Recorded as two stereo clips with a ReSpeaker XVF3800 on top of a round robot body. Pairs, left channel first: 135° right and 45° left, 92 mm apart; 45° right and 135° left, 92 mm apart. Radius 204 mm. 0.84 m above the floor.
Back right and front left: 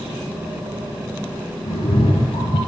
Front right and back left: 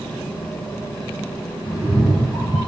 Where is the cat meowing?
140° right, 1.1 m.